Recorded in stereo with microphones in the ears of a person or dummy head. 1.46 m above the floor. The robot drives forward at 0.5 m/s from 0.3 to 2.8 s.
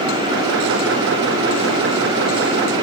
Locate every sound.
Only background noise.